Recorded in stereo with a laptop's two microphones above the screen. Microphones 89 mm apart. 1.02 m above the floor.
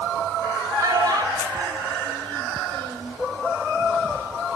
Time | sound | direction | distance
0.8 | a child speaking | 40° right (ahead or behind) | 3 m